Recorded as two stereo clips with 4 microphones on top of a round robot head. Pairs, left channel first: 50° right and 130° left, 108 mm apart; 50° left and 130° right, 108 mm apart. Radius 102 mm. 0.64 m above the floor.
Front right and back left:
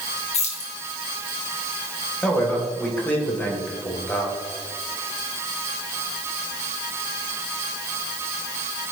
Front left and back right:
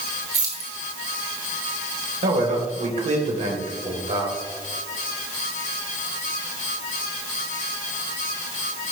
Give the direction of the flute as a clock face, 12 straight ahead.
I don't hear a flute.